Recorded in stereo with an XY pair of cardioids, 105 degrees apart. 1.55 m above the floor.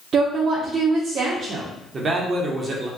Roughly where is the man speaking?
Ahead right.